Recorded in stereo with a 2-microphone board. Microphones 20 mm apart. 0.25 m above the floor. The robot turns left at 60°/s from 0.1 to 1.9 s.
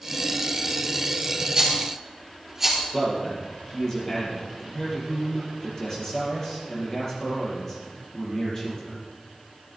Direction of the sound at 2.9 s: 25° left (ahead or behind).